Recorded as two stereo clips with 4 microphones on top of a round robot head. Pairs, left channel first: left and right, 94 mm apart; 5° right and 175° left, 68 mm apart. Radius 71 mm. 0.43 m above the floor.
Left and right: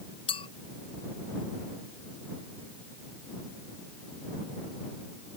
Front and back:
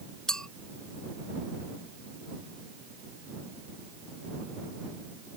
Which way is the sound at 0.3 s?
75° left.